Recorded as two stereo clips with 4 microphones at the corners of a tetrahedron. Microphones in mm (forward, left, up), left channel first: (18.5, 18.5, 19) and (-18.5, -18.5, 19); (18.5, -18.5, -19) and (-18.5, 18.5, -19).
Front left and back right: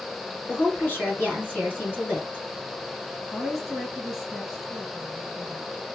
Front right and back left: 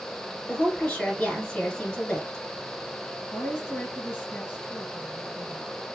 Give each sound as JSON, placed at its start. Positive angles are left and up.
{"t": 0.5, "sound": "a woman speaking", "azimuth_deg": 10, "distance_m": 1.8}
{"t": 3.3, "sound": "a woman speaking", "azimuth_deg": -45, "distance_m": 1.9}